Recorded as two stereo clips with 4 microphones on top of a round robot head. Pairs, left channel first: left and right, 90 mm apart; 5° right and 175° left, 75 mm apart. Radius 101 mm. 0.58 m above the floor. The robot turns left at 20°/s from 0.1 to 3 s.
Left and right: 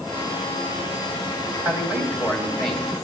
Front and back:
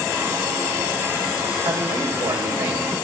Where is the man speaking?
160° right, 3.5 m; by 3.0 s 170° left, 3.5 m.